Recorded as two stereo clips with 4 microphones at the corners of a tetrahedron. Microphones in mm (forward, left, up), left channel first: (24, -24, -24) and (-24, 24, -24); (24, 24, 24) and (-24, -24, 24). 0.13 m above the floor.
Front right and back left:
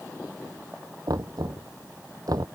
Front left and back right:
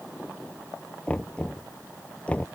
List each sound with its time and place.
1.1 s knocking: 115° left